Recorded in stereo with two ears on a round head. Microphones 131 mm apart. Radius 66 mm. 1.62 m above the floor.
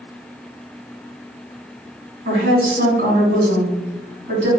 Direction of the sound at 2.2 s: 85° right.